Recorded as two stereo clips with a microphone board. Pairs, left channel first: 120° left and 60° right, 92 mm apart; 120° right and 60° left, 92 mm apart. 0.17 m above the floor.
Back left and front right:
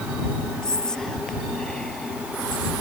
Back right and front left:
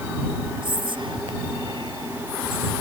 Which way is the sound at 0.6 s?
40° left.